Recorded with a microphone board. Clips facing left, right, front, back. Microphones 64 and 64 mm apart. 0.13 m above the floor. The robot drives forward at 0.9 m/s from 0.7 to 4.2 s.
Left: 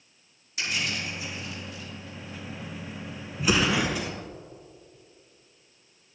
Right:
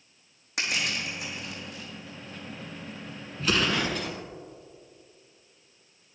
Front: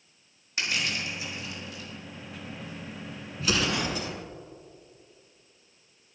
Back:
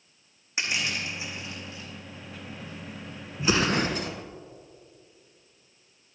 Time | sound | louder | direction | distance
0.6 | crushing | right 1 dB, even | 110° right | 4 m
3.4 | an explosion | left 2 dB, back 4 dB | 150° left | 0.7 m